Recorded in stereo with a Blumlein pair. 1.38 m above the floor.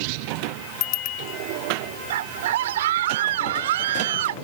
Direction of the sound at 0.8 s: 40° left.